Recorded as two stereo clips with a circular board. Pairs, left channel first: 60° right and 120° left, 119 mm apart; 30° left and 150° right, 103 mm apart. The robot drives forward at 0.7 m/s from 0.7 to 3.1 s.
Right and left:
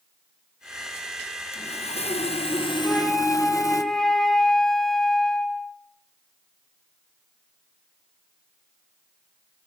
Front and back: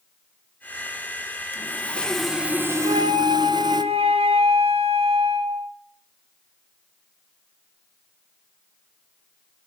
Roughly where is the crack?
No crack in this recording.